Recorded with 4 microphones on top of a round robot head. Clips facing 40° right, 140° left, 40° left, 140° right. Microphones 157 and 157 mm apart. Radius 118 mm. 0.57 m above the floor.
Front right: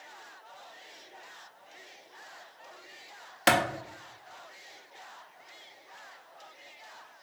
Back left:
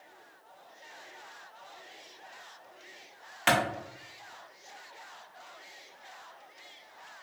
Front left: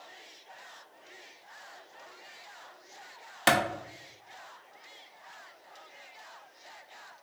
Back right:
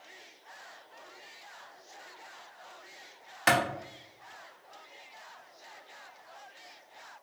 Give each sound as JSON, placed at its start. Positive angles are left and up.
{"t": 3.5, "sound": "a clap", "azimuth_deg": -5, "distance_m": 0.7}